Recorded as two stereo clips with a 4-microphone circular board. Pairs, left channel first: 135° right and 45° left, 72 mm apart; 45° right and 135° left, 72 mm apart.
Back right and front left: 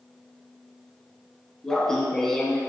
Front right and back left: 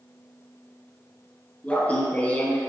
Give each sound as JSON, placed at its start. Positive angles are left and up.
{"t": 1.6, "sound": "laughter", "azimuth_deg": -65, "distance_m": 1.5}